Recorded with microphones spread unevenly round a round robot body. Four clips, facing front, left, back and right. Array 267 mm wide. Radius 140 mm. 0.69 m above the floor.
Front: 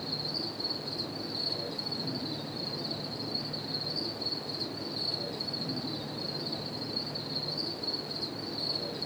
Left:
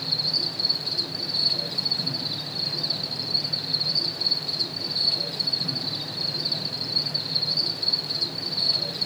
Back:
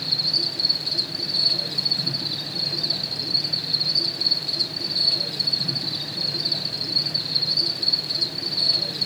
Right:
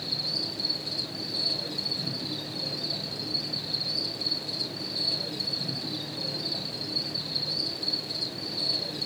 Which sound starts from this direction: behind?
An insect, at 0.0 s.